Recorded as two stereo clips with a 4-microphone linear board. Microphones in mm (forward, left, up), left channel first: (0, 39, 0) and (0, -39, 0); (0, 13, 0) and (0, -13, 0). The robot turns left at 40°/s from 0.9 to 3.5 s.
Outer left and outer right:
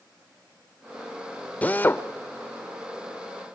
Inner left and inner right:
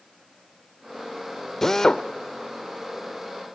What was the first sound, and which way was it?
A drill, 20° left (ahead or behind).